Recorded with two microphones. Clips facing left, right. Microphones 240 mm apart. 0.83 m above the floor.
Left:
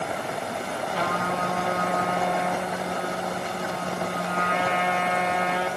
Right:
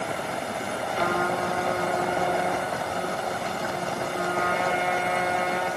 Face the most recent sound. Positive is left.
turn(degrees=75)  # may be behind; listen again after turning